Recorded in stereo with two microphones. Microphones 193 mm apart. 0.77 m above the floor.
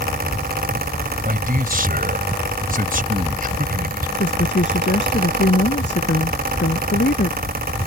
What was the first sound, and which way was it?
A man speaking, 45° right (ahead or behind).